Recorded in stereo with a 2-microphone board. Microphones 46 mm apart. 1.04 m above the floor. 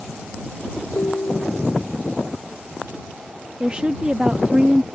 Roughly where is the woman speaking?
Right.